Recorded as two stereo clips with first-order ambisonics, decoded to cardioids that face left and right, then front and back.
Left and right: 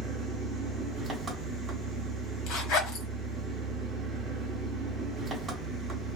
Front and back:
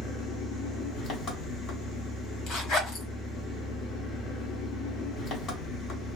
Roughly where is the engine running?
Ahead.